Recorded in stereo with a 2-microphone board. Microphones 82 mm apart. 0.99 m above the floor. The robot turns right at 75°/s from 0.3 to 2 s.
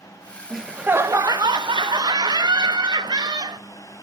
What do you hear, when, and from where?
0.5 s laughter: 175° left, 0.7 m; by 3.6 s 70° right, 0.7 m